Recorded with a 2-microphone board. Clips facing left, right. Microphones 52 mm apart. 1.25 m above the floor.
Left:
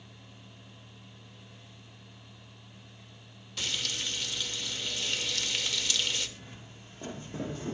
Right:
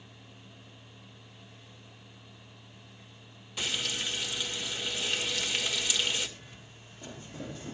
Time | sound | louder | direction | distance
3.6 | frying | right 2 dB | 15° right (ahead or behind) | 2 m
6.4 | footsteps | left 2 dB | 40° left (ahead or behind) | 3 m